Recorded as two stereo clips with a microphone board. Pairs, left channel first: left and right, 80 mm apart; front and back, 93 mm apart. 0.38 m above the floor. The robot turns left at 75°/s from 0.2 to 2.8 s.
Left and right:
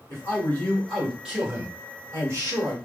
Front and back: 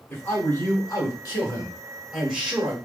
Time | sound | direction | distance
0.1 | a man speaking | 55° left | 1.5 m